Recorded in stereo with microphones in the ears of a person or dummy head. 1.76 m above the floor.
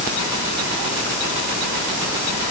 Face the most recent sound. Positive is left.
No sound to turn to.